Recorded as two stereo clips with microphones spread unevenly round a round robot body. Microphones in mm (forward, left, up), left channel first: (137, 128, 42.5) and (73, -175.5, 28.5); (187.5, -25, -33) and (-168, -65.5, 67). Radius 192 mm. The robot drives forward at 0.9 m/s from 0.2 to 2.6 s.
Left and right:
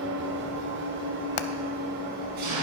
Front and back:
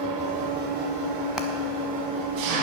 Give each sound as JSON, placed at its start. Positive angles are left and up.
{"t": 0.0, "sound": "an engine running", "azimuth_deg": -140, "distance_m": 1.6}
{"t": 1.4, "sound": "hammering", "azimuth_deg": 95, "distance_m": 0.6}